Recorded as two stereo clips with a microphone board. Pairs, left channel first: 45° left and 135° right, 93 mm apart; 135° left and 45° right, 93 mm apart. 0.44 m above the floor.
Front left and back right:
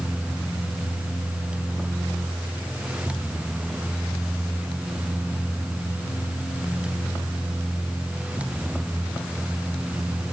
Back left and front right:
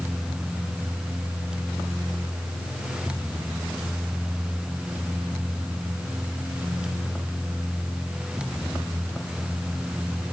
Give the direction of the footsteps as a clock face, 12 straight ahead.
I don't hear footsteps.